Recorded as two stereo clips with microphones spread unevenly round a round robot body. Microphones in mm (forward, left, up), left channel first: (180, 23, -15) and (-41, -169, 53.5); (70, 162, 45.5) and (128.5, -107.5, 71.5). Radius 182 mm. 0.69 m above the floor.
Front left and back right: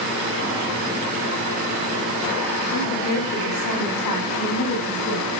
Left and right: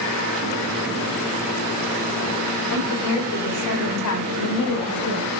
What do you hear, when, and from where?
2.7 s a woman speaking: 80° left, 6 m; by 5.3 s 90° left, 3.5 m